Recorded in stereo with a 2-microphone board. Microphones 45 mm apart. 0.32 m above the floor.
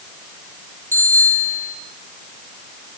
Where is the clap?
No clap in this recording.